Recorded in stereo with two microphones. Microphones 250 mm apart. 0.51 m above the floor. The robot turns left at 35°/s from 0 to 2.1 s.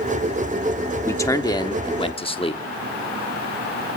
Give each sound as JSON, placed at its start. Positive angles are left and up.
{"t": 1.1, "sound": "a man speaking", "side_deg": 10, "distance_m": 0.9}